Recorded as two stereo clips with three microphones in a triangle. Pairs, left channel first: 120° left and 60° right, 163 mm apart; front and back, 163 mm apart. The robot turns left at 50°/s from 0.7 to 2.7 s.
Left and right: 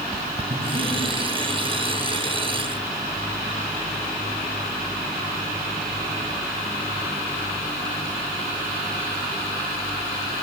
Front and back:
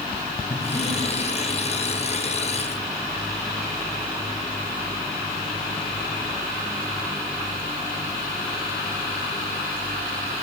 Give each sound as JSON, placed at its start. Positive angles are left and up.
{"t": 0.5, "sound": "breathing", "azimuth_deg": -40, "distance_m": 3.0}